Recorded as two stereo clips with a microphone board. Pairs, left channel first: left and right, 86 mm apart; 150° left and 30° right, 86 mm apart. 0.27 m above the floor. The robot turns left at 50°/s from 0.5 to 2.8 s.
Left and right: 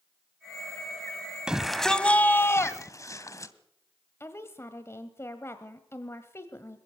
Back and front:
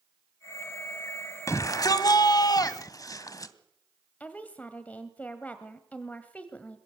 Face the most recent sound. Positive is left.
turn(degrees=95)